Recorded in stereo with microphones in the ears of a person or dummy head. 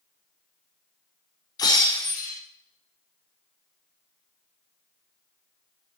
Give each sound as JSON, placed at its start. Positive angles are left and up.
{"t": 1.6, "sound": "breaking glass", "side_deg": 15, "distance_m": 4.0}